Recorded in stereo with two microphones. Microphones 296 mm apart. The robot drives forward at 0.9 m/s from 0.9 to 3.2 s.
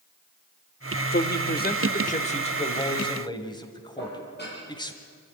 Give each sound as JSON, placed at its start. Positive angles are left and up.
{"t": 1.1, "sound": "a man speaking", "side_deg": 35, "distance_m": 0.9}
{"t": 4.0, "sound": "dishes clattering", "side_deg": 35, "distance_m": 8.0}